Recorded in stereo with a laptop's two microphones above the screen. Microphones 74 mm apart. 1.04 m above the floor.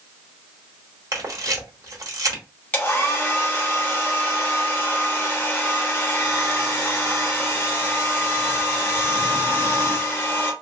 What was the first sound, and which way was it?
A camera shutter, 50° right (ahead or behind).